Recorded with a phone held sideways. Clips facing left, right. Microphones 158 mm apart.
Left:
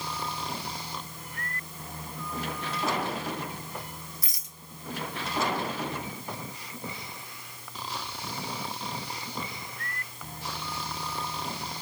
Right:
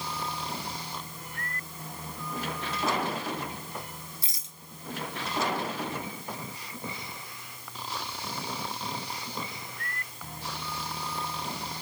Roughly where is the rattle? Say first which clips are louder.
Left 1 dB; right.